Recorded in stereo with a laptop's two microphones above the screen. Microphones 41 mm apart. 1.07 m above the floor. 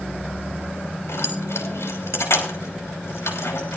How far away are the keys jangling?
About 3 m.